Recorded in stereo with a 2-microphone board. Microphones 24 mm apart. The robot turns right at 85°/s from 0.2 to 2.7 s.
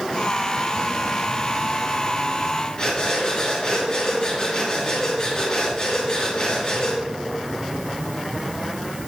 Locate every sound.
2.8 s breathing: 35° left (ahead or behind), 3.5 m